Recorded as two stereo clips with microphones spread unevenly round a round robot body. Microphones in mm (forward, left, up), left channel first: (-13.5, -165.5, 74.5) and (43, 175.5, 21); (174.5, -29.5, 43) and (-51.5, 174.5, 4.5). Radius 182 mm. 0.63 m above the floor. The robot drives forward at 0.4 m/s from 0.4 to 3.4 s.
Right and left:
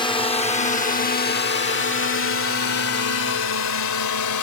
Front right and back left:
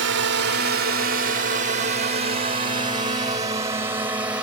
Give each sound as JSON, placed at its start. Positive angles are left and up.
{"t": 0.0, "sound": "a drone", "azimuth_deg": 180}